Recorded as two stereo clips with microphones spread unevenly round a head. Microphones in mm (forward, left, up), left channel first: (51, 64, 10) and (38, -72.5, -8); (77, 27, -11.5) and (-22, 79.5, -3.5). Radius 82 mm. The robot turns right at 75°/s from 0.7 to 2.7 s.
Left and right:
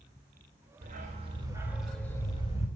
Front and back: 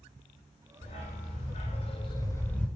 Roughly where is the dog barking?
Right.